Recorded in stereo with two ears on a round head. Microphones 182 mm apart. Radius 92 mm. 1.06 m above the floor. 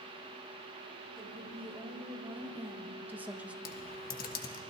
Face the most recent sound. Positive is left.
turn(degrees=45)  # may be behind; listen again after turning